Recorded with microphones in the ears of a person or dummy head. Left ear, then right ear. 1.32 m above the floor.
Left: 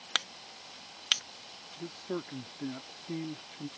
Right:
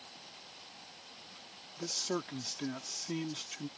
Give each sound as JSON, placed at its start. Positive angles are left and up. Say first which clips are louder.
{"t": 1.8, "sound": "a man speaking", "louder": "right 3 dB", "side_deg": -80}